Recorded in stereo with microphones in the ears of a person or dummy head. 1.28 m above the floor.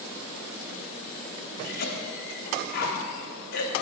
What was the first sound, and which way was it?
A cough, 55° left (ahead or behind).